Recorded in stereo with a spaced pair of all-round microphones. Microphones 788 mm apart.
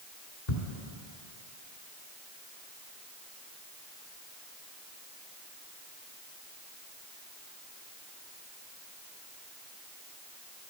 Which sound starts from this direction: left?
Ticking, at 0.5 s.